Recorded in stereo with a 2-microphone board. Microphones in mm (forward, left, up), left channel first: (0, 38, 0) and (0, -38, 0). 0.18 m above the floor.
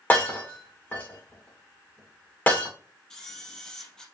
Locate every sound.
0.1 s breaking glass: 20° left (ahead or behind), 5 m
3.1 s a camera shutter: 10° left (ahead or behind), 3 m